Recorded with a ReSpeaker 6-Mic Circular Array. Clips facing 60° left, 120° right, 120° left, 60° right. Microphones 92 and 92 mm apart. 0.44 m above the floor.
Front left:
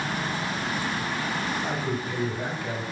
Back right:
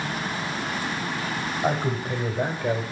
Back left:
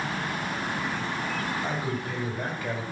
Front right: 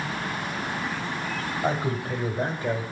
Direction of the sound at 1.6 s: 90° right.